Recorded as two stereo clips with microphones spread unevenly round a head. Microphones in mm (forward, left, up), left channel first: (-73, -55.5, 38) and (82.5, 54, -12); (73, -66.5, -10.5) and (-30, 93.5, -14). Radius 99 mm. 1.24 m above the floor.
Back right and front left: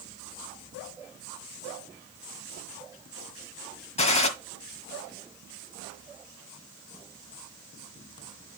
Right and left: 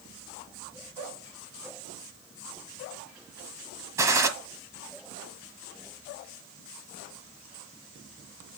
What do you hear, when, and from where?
4.0 s a gunshot: 165° right, 1.4 m